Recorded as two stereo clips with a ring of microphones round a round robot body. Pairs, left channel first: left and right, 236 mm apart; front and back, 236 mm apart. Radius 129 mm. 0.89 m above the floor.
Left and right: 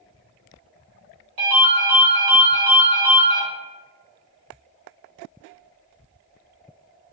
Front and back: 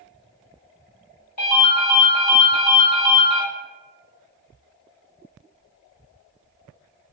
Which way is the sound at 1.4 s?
55° right.